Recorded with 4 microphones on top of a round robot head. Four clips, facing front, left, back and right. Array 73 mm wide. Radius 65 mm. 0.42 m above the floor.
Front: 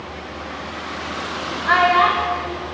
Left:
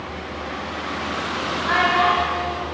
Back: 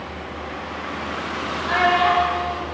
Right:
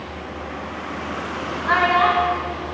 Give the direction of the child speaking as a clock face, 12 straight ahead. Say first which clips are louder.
Right 1 dB, front 3 dB; 1 o'clock.